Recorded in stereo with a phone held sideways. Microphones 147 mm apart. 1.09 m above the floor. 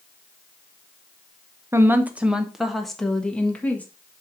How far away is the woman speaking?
About 1.1 m.